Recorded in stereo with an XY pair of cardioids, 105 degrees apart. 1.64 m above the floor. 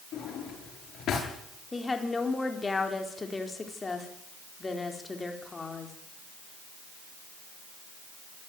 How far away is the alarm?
I don't hear an alarm.